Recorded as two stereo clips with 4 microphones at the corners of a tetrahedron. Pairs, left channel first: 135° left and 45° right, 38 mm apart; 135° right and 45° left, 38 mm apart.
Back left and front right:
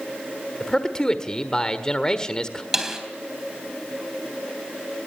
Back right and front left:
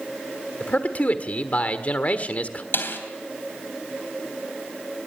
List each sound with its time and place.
0.6 s a man speaking: 160° right, 1.5 m
2.7 s a snare drum: 120° right, 3 m